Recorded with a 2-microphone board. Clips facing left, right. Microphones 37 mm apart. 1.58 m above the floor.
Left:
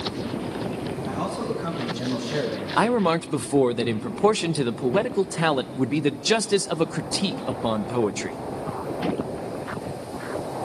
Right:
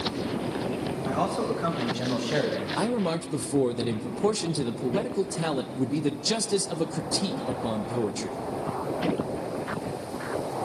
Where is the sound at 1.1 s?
85° right, 8.5 m; by 2.7 s 90° right, 9.5 m.